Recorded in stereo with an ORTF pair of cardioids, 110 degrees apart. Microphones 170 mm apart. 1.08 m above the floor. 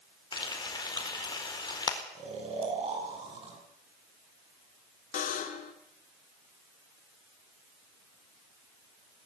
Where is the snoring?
40° right, 7 m.